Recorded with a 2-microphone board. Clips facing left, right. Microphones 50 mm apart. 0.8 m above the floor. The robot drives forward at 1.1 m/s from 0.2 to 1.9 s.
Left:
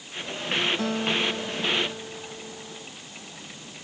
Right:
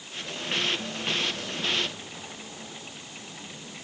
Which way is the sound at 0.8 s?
80° left.